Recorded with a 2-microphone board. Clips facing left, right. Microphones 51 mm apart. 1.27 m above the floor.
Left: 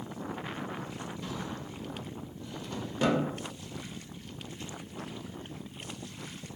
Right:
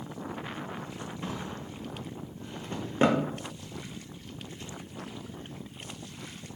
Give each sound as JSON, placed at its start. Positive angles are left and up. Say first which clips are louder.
{"t": 1.2, "sound": "a drawer", "louder": "right 3 dB", "side_deg": -35, "distance_m": 0.6}